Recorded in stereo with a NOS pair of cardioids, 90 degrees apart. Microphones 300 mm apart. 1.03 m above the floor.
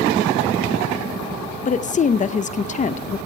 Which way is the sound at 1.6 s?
25° left.